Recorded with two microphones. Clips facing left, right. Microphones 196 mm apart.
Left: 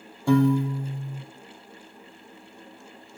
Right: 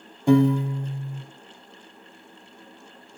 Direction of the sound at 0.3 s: 20° right (ahead or behind).